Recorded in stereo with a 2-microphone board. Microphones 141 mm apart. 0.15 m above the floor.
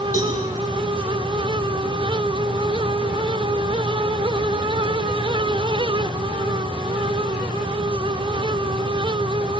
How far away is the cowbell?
About 5.5 m.